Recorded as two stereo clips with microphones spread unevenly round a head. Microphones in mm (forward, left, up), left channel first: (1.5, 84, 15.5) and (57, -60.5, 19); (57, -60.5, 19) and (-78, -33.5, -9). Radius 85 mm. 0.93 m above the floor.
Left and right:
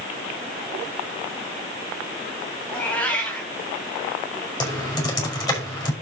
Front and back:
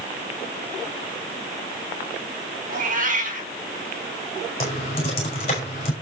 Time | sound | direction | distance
2.7 | a cat meowing | 165° right | 3 m
4.6 | typing on a keyboard | 45° left | 5.5 m